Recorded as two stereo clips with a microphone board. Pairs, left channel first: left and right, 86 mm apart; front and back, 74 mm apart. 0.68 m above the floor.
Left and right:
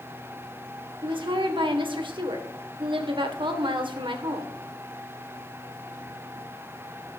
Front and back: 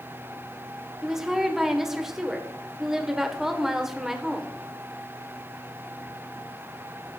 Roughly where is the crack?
No crack in this recording.